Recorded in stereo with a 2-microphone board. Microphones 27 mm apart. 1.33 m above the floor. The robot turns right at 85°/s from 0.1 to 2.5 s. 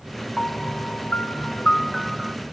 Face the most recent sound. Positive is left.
turn(degrees=-135)